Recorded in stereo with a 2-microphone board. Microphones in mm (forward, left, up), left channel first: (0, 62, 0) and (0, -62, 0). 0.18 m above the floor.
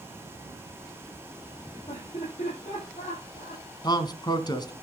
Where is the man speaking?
35° left (ahead or behind), 1.5 m.